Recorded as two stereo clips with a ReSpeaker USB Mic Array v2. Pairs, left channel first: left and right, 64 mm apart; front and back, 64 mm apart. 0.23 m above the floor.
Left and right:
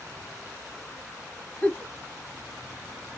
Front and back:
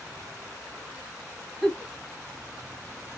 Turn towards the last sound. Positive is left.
turn(degrees=70)